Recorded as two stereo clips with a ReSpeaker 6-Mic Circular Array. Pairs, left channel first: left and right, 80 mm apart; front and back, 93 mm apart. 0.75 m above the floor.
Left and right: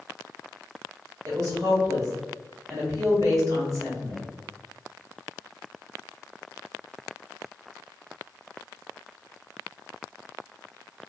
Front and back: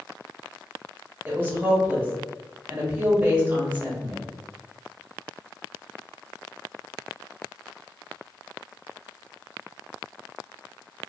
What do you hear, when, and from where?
1.2 s a woman speaking: 115° right, 1.4 m